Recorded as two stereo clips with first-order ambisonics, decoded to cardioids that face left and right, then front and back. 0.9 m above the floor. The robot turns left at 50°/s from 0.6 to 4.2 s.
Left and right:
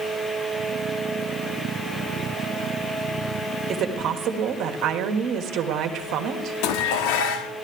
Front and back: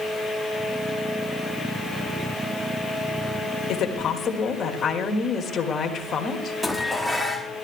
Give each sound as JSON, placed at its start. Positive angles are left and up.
{"t": 3.7, "sound": "a woman speaking", "azimuth_deg": -35, "distance_m": 1.5}
{"t": 6.6, "sound": "dishes clattering", "azimuth_deg": 90, "distance_m": 0.9}